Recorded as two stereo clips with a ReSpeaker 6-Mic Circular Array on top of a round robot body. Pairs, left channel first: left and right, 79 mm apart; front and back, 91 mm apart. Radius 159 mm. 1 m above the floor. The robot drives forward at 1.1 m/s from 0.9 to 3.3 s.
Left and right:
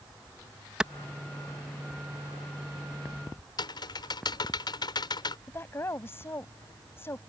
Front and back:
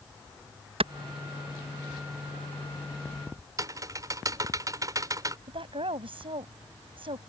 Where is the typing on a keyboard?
125° left.